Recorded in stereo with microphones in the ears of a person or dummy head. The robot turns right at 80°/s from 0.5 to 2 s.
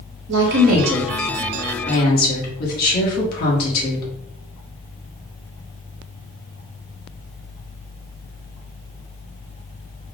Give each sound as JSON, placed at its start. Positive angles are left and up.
{"t": 0.3, "sound": "a woman speaking", "azimuth_deg": -65, "distance_m": 1.5}